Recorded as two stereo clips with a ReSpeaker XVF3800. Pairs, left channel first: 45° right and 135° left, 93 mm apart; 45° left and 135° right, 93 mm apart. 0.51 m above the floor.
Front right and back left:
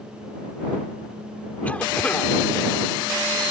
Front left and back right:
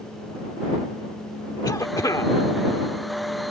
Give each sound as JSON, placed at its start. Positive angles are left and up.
{"t": 1.6, "sound": "a cough", "azimuth_deg": 20}